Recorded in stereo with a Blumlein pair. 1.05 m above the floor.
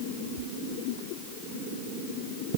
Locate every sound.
Only background noise.